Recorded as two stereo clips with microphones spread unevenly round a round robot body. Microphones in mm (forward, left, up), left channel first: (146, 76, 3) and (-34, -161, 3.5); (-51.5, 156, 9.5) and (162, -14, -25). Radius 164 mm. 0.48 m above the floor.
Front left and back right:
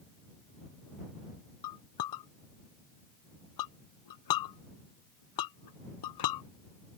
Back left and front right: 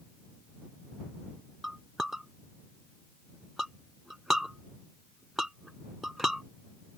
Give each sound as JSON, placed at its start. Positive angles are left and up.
{"t": 1.6, "sound": "a clink", "azimuth_deg": 50}